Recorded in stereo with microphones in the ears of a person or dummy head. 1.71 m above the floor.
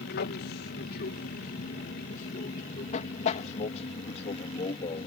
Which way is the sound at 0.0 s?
55° left (ahead or behind).